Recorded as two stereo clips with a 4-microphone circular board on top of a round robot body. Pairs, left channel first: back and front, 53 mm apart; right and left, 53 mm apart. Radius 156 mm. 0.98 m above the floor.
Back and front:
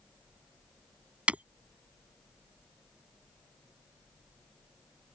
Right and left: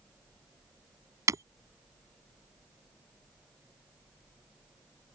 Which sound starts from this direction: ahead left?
Breaking glass, at 1.3 s.